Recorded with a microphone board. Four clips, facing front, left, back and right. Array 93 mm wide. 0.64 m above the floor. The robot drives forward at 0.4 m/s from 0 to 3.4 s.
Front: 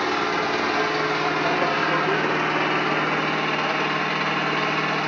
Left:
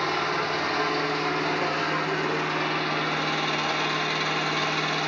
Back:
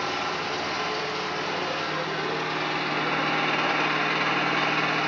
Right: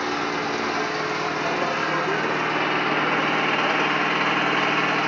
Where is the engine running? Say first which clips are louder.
Right 1 dB, front 6 dB; 10° right, 1.5 m; by 5.1 s 85° right, 0.6 m.